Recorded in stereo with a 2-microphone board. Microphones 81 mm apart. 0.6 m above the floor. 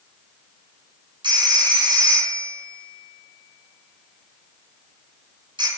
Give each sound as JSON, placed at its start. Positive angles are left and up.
{"t": 1.2, "sound": "a phone ringing", "side_deg": -75, "distance_m": 2.5}